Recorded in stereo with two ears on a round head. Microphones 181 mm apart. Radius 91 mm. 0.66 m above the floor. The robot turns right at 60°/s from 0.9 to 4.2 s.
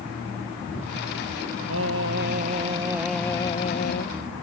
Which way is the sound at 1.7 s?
85° right.